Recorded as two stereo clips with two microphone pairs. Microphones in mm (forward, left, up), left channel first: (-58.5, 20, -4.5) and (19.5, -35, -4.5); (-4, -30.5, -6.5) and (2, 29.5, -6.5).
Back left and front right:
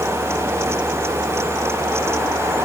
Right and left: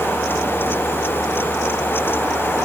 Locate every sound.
Only background noise.